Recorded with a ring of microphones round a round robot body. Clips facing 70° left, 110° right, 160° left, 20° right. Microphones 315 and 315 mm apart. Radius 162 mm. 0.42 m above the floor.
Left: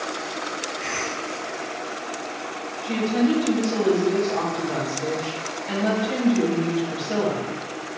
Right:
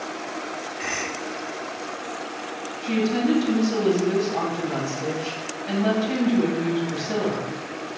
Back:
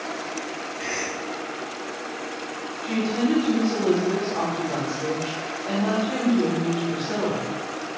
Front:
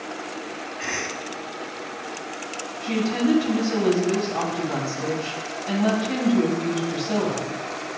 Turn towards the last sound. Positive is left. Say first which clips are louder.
# left 1 dB, front 1 dB
turn(degrees=-70)